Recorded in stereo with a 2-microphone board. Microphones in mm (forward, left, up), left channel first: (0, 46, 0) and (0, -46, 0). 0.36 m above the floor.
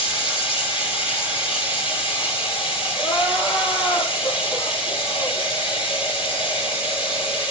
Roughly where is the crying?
Left.